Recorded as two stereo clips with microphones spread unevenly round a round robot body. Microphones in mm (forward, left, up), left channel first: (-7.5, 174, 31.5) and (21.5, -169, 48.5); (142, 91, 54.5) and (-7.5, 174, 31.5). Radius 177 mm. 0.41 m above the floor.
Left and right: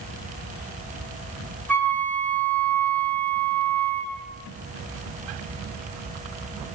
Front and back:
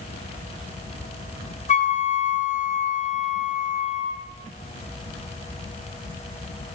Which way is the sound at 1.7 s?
15° left.